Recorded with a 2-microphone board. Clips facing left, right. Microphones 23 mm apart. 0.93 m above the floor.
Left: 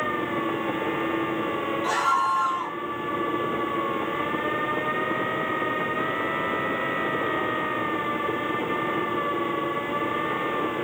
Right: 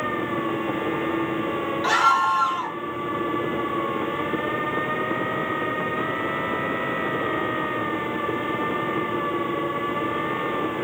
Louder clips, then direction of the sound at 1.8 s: Right 5 dB; 55° right (ahead or behind).